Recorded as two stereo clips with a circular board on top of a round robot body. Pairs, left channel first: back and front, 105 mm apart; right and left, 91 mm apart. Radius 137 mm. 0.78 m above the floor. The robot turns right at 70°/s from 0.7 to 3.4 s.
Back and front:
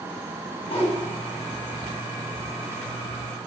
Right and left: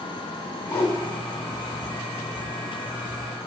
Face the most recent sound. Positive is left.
turn(degrees=40)